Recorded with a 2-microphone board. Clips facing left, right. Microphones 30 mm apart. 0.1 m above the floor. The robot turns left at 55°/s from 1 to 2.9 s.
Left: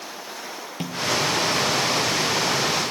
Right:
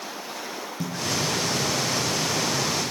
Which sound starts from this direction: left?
A snare drum, at 0.8 s.